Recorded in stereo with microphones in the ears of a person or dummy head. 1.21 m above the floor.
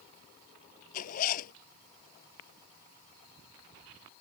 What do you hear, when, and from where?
0.9 s a zipper: 45° left (ahead or behind)